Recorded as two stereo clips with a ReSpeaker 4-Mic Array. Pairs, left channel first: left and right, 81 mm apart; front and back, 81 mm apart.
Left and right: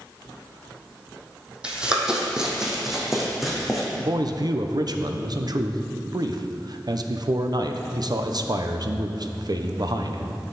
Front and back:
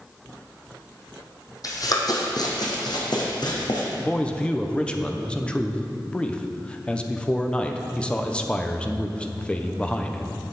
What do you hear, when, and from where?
1.6 s running footsteps: 15° right, 1.9 m; by 3.9 s straight ahead, 3 m
4.0 s a man speaking: 75° right, 0.8 m